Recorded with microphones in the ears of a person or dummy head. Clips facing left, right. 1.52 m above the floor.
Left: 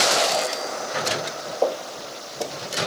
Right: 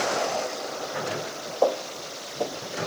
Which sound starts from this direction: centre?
Footsteps, at 1.6 s.